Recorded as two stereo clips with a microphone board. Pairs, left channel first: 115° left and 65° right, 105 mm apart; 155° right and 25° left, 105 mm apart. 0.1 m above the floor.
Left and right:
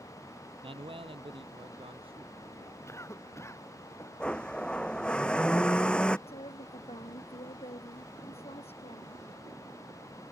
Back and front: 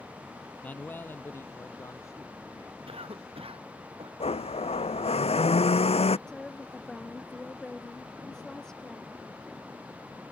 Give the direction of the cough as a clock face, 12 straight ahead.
10 o'clock.